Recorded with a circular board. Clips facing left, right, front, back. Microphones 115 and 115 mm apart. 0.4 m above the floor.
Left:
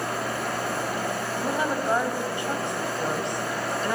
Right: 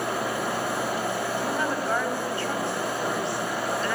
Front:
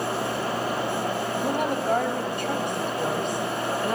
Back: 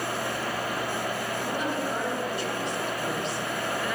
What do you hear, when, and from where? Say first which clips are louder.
1.4 s a woman speaking: left 1 dB, front 4 dB; 20° left, 3.5 m; by 4.0 s 30° left, 2.0 m